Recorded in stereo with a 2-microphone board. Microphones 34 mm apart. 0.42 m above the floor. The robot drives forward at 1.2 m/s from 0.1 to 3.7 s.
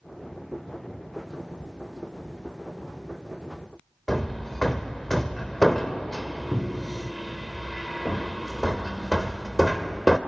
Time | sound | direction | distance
4.1 | hammering | 10° left (ahead or behind) | 1.0 m